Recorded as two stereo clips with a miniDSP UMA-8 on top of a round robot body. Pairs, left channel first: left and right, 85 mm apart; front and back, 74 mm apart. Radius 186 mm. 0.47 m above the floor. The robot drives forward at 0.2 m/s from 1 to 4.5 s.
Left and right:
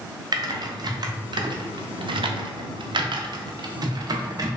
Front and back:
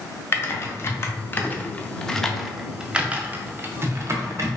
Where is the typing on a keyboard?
55° right, 0.5 m; by 4.6 s 135° right, 0.6 m.